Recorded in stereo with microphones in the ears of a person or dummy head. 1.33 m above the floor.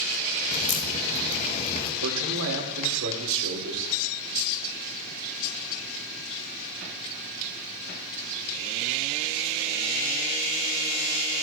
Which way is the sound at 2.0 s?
75° right (ahead or behind).